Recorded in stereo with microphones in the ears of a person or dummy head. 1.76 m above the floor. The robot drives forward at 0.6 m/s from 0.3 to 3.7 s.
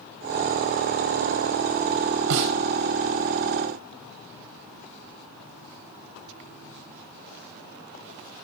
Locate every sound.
2.3 s a snare drum: 70° right (ahead or behind), 3.5 m